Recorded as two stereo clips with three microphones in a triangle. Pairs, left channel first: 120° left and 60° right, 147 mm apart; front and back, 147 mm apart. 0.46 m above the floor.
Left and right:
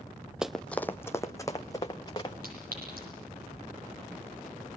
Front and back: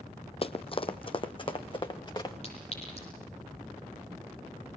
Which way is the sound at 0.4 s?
25° left.